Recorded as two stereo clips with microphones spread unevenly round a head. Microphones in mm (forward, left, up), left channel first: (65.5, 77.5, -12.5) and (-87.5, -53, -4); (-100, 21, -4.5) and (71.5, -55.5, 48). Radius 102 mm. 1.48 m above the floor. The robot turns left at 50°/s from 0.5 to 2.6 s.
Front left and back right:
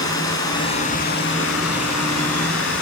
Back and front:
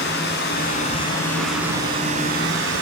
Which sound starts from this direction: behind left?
Running water, at 0.0 s.